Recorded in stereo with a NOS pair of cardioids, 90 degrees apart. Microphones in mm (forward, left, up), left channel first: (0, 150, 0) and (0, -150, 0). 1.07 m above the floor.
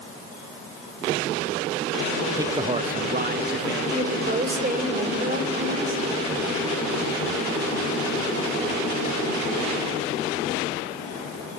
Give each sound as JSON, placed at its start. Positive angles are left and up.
{"t": 2.4, "sound": "a man speaking", "azimuth_deg": -10, "distance_m": 0.5}
{"t": 3.9, "sound": "a woman speaking", "azimuth_deg": -30, "distance_m": 3.5}